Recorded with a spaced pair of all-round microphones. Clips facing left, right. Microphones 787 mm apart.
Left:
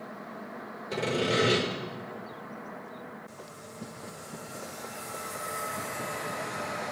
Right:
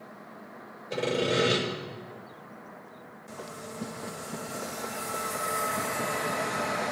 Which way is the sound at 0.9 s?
65° left (ahead or behind).